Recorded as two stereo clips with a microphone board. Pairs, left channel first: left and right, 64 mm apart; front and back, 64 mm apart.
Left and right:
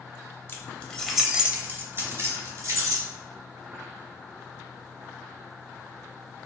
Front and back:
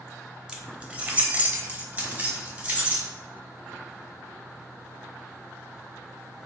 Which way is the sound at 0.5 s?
110° left.